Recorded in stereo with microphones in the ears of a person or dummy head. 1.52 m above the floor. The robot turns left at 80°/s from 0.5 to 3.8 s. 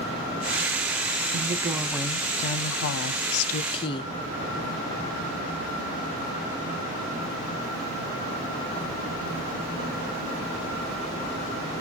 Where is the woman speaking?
135° right, 0.5 m; by 4.1 s 25° left, 0.5 m.